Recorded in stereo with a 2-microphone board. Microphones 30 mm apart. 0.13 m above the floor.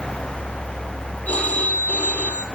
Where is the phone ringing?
55° left (ahead or behind), 3 m.